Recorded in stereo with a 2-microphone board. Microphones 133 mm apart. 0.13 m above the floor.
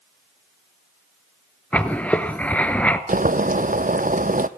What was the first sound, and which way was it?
Writing, 10° left (ahead or behind).